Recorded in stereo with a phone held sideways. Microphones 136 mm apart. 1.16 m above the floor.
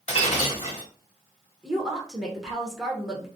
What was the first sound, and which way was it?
Breaking glass, 50° left (ahead or behind).